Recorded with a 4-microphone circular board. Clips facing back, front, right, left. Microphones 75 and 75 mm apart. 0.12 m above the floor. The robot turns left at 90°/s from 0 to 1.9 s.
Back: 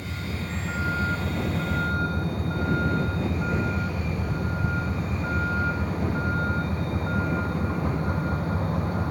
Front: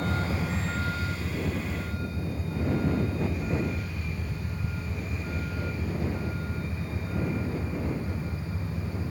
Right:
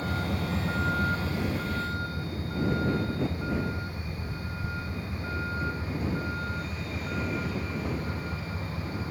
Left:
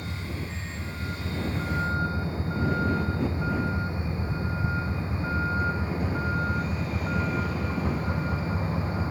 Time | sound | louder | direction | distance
0.0 | a vehicle | front 4 dB, right 5 dB | 35° right | ?